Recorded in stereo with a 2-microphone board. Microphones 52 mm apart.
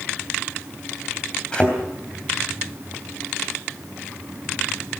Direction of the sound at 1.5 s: 20° left (ahead or behind).